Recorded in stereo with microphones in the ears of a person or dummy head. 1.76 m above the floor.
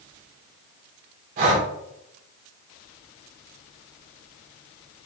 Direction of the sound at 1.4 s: 40° right (ahead or behind).